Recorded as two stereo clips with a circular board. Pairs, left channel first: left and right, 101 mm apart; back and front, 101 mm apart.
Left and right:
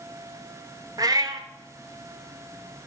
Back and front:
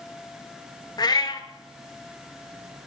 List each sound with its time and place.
1.0 s a cat meowing: 135° right, 0.6 m